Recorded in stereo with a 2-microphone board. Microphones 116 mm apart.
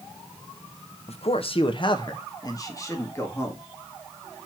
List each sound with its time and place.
1.1 s a man speaking: 60° left (ahead or behind), 0.9 m; by 3.6 s 20° left (ahead or behind), 2 m